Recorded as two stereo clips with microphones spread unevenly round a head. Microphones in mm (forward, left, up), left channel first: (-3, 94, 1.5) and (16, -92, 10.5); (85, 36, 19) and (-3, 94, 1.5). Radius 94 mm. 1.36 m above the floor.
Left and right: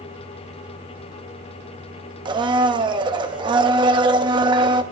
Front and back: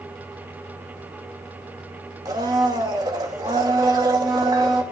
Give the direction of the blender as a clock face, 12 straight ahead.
5 o'clock.